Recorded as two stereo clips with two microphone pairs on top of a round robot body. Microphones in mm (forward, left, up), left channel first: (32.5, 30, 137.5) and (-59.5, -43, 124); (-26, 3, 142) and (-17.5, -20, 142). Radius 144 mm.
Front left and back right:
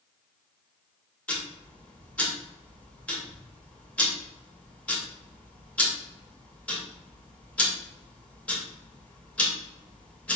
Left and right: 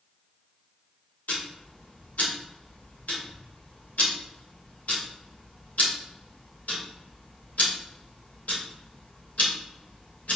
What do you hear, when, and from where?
1.3 s ticking: 120° left, 2.5 m